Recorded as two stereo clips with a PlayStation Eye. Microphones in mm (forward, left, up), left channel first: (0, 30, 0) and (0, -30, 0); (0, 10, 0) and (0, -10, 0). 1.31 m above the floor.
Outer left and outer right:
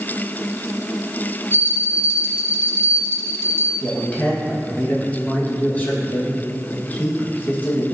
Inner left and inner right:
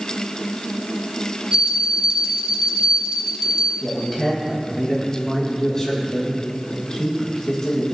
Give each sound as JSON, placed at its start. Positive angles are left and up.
{"t": 1.5, "sound": "a bell", "side_deg": -45, "distance_m": 1.4}
{"t": 3.8, "sound": "a man speaking", "side_deg": 30, "distance_m": 1.8}